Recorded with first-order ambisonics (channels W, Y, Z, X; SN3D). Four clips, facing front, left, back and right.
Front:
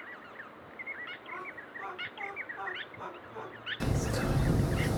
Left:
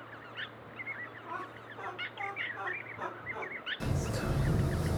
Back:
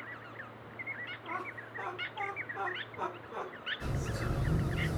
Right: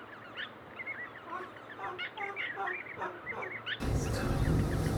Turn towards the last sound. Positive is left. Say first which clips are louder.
# right 1 dB, front 5 dB
turn(degrees=0)